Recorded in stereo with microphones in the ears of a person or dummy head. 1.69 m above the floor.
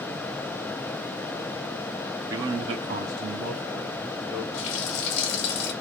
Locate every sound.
2.3 s a man speaking: 20° right (ahead or behind), 0.7 m; by 4.4 s 10° right (ahead or behind), 1.7 m
4.5 s a running tap: 25° left (ahead or behind), 0.7 m